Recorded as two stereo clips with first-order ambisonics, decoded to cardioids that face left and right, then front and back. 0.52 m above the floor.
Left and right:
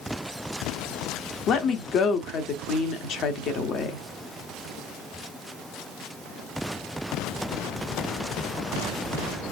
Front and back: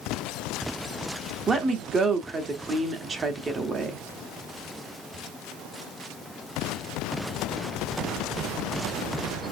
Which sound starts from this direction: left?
A woman speaking, at 1.5 s.